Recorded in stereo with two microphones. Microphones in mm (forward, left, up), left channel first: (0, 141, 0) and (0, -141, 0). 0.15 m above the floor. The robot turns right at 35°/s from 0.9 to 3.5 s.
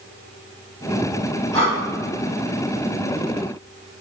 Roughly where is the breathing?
Centre.